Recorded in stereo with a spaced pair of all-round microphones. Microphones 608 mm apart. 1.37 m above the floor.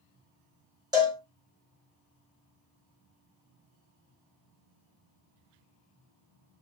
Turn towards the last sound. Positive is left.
turn(degrees=-5)  # may be behind; listen again after turning